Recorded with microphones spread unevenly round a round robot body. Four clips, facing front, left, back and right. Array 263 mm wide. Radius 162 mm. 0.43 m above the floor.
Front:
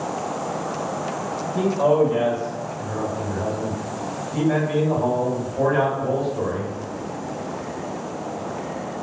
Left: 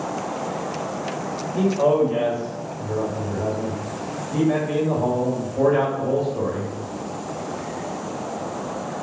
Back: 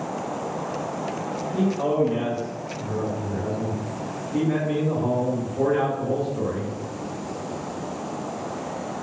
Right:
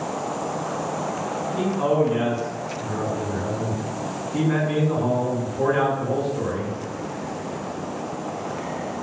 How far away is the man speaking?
About 1.9 m.